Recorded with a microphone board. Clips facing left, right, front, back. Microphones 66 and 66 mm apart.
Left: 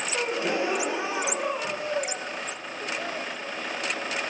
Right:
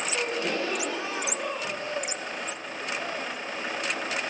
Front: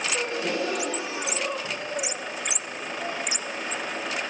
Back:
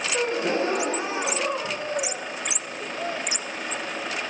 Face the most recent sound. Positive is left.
turn(degrees=150)